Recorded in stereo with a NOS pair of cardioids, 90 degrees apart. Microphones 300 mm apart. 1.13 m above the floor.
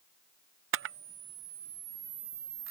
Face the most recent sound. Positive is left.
turn(degrees=-45)